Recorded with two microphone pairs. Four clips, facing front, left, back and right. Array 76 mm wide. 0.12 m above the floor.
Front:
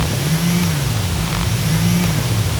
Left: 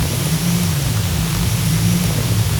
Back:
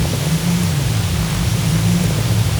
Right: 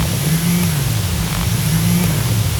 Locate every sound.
Only background noise.